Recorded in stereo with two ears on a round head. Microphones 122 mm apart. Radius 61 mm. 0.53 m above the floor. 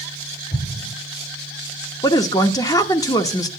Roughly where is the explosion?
Left.